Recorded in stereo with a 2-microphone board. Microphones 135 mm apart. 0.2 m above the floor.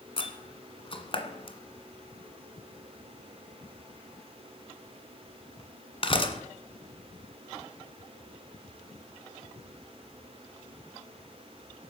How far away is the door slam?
About 1.6 m.